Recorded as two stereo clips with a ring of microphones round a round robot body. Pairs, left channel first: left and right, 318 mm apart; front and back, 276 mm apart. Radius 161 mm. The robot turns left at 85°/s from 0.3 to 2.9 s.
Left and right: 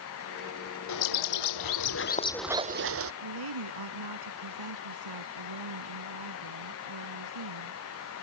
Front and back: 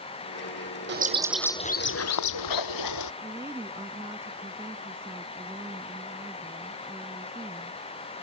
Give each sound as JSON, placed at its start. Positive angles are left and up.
{"t": 0.9, "sound": "a bird", "azimuth_deg": 130}
{"t": 3.2, "sound": "a woman speaking", "azimuth_deg": -100}